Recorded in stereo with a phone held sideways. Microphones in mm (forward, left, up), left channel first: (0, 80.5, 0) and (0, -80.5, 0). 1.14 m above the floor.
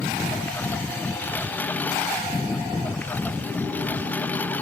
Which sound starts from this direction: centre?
A lawn mower, at 0.0 s.